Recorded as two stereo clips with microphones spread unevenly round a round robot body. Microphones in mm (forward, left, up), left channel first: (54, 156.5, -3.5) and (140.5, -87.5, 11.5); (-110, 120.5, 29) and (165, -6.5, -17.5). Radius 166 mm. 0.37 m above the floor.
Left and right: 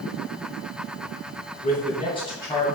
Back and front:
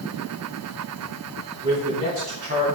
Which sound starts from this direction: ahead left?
A man speaking, at 1.6 s.